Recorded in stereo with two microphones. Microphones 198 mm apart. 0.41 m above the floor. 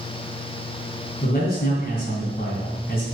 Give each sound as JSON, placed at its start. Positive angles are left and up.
{"t": 1.2, "sound": "a man speaking", "side_deg": 55, "distance_m": 3.0}